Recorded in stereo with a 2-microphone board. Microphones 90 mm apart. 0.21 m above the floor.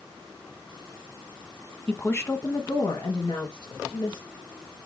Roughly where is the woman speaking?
Centre.